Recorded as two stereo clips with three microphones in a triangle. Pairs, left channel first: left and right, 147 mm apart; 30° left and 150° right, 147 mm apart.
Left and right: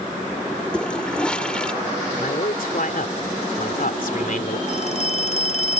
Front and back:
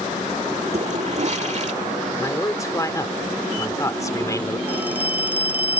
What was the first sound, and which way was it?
A toilet flushing, 175° left.